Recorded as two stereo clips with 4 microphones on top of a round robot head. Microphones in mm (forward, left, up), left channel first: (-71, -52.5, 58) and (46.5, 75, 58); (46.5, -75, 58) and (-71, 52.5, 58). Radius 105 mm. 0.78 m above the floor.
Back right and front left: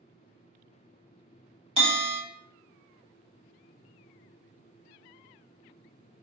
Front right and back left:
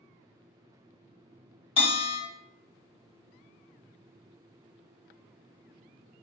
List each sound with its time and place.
1.8 s a bell: 5° left, 1.5 m